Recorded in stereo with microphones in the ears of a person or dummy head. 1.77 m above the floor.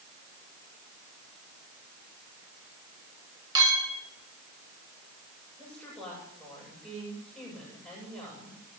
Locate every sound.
3.5 s a clink: 20° right (ahead or behind), 3.5 m
5.6 s a woman speaking: centre (ahead or behind), 9 m